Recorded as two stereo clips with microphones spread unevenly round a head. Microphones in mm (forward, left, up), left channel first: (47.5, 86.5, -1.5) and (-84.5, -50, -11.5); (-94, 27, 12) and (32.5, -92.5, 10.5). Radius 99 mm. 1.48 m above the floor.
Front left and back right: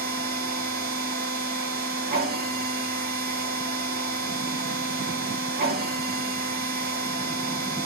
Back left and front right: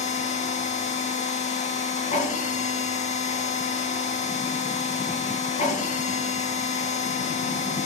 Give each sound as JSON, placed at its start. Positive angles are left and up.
{"t": 0.0, "sound": "a machine running", "azimuth_deg": -175, "distance_m": 1.4}